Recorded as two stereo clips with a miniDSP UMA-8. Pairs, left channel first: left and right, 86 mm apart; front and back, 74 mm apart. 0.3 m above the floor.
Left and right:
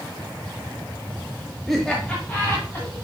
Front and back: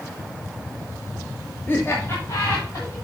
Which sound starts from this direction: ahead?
Laughter, at 1.7 s.